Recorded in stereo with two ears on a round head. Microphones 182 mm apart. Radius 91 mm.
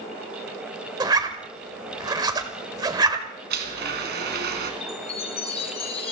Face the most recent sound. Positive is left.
turn(degrees=30)  # may be behind; listen again after turning